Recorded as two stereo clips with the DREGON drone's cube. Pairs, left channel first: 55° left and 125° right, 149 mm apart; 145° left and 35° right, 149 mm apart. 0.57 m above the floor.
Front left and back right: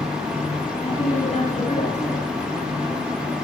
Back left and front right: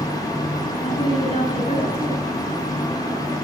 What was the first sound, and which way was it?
A woman speaking, 95° left.